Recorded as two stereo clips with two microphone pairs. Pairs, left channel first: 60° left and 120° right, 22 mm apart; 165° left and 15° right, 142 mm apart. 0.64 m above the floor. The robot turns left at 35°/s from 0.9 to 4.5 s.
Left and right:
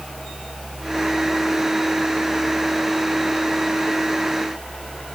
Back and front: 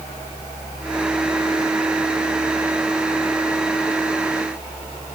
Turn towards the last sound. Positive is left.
No sound to turn to.